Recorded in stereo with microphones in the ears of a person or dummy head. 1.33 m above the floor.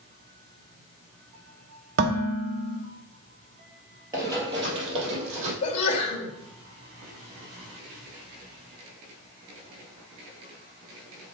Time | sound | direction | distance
2.0 | dishes clattering | 60° right (ahead or behind) | 1.2 m
4.1 | running footsteps | 15° right (ahead or behind) | 2 m
5.6 | a sneeze | 35° left (ahead or behind) | 2 m